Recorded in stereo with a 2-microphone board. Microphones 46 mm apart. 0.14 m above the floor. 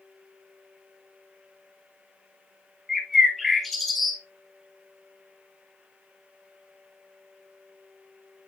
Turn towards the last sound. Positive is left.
turn(degrees=0)  # may be behind; listen again after turning